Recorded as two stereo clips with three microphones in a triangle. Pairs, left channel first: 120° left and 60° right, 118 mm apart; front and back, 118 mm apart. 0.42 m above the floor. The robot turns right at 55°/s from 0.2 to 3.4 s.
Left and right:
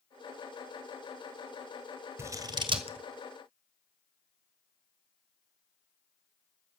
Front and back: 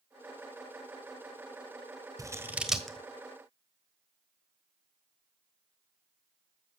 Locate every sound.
2.2 s scissors: 125° right, 1.4 m; by 3.0 s 80° right, 1.4 m